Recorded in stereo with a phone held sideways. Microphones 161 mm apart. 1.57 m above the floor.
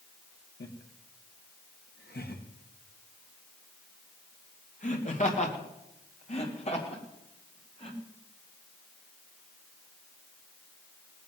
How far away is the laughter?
About 1.5 m.